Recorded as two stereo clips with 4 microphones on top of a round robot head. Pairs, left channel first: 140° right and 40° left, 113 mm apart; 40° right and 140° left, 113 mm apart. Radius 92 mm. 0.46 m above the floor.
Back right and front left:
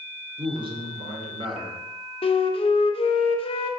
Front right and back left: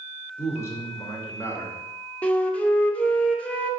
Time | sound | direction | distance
0.4 | a man speaking | 20° left | 1.9 m
2.2 | a flute | 120° right | 0.8 m